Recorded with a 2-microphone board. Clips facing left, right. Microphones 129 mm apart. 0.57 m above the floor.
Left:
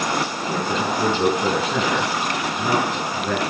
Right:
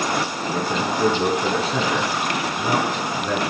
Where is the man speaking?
55° left (ahead or behind), 5.5 m.